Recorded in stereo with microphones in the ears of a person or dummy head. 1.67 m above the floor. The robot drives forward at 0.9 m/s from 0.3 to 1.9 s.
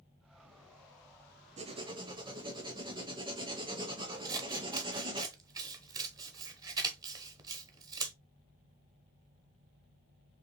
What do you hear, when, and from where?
1.6 s writing: 30° right (ahead or behind), 0.6 m; by 5.2 s 20° right (ahead or behind), 0.8 m
4.2 s scissors: 20° right (ahead or behind), 0.9 m